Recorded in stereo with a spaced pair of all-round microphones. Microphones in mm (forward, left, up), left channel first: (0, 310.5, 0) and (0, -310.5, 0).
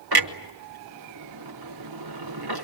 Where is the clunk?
40° right (ahead or behind), 1.2 m.